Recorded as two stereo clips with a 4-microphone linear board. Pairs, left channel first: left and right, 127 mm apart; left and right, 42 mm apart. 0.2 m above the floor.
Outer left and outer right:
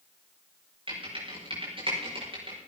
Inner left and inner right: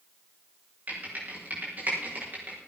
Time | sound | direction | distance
0.9 | typing on a keyboard | 45° right (ahead or behind) | 8 m